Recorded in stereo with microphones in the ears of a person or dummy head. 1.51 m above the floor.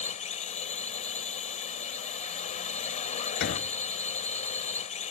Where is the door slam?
60° left (ahead or behind).